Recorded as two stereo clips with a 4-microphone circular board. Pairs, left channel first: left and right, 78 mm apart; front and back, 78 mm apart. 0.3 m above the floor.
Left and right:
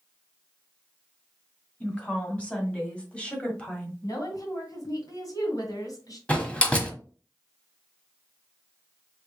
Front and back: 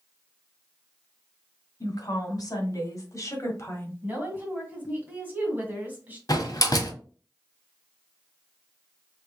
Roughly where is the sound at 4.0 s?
Behind left.